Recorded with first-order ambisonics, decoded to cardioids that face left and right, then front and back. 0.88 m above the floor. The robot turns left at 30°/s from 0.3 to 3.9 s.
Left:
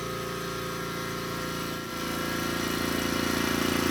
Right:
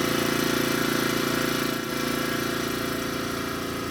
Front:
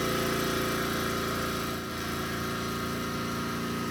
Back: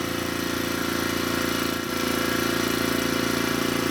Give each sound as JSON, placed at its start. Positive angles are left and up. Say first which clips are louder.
{"t": 0.0, "sound": "an engine running", "louder": "right 9 dB, back 1 dB", "azimuth_deg": -105, "distance_m": 1.3}